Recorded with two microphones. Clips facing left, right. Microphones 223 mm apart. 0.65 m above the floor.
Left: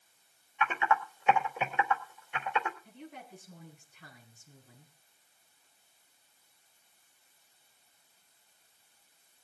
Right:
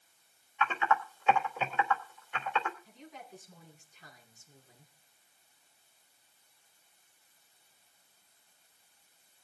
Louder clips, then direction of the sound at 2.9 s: Left 3 dB; 60° left (ahead or behind).